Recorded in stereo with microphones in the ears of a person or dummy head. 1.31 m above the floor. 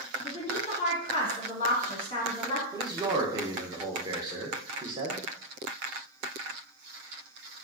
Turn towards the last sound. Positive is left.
turn(degrees=-25)  # may be behind; listen again after turning